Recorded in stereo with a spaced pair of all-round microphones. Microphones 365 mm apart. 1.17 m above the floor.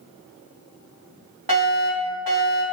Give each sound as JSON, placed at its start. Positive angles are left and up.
{"t": 1.5, "sound": "a fire alarm", "side_deg": -65, "distance_m": 3.0}